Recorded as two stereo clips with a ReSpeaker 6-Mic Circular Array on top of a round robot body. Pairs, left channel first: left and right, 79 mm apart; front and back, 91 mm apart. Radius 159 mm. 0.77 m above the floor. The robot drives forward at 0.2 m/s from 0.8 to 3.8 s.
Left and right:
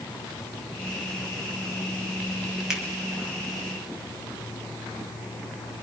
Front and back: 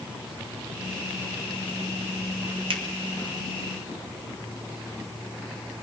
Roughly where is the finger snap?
Behind.